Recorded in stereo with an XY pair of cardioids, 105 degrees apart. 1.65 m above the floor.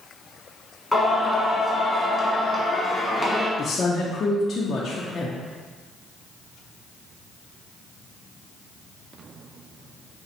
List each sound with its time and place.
0.9 s singing: 5° left, 1.8 m
3.6 s a woman speaking: 40° left, 0.8 m